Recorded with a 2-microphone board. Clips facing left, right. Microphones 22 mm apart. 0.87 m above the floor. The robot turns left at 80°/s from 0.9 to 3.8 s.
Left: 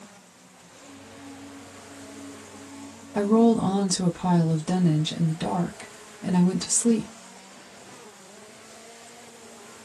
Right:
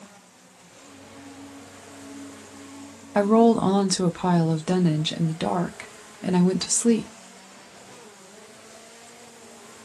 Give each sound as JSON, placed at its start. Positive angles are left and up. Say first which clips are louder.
{"t": 3.1, "sound": "a woman speaking", "louder": "right 2 dB", "azimuth_deg": -85, "distance_m": 0.8}